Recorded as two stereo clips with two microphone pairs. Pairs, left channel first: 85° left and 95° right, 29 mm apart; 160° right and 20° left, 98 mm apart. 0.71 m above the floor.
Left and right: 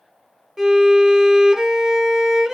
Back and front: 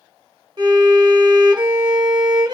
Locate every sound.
0.6 s a violin: 20° right, 0.8 m